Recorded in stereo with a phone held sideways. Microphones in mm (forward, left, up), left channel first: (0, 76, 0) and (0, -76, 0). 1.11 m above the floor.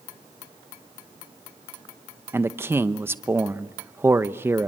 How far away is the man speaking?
About 0.8 m.